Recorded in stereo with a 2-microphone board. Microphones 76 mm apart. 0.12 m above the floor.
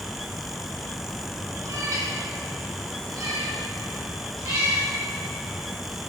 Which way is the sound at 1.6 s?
45° right (ahead or behind).